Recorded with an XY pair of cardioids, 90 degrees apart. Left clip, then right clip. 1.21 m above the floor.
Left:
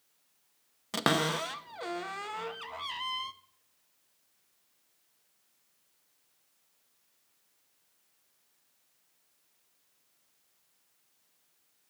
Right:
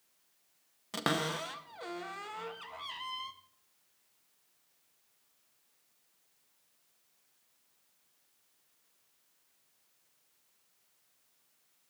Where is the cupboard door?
35° left, 0.6 m.